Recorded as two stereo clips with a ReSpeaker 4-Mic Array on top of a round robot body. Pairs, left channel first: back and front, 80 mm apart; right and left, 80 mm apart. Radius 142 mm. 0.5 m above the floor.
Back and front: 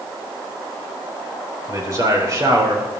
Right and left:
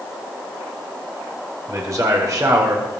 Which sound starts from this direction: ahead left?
A man speaking, at 1.7 s.